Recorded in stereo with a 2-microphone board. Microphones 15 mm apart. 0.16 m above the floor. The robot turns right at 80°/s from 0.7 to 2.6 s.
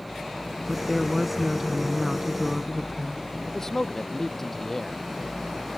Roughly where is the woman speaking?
Centre.